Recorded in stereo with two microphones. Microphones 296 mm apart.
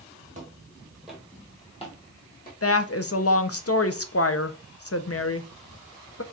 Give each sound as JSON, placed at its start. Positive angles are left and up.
{"t": 0.3, "sound": "footsteps", "side_deg": -25, "distance_m": 1.3}
{"t": 2.6, "sound": "a woman speaking", "side_deg": 50, "distance_m": 0.5}